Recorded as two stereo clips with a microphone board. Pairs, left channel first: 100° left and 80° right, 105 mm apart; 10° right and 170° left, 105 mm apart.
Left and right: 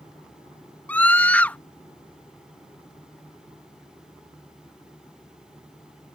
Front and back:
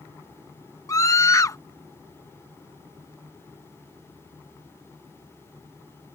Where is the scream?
30° left.